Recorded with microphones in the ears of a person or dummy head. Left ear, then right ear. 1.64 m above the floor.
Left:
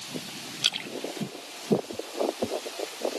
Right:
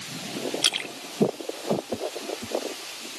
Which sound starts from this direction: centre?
A splash, at 0.6 s.